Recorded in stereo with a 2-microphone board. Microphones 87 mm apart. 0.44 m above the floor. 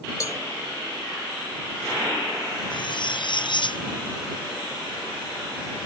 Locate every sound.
0.2 s a cowbell: 40° left (ahead or behind)
2.7 s cutlery clinking: 60° left (ahead or behind)